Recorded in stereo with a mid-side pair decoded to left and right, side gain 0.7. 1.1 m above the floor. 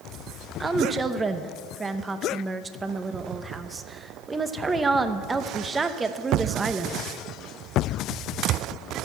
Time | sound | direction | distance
0.6 | a woman speaking | 20° right | 0.8 m